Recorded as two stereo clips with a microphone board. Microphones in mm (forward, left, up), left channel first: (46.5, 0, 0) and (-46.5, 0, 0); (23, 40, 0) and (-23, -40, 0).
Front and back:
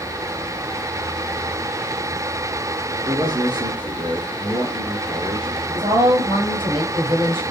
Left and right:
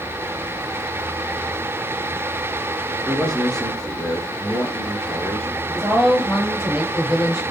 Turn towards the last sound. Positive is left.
turn(degrees=160)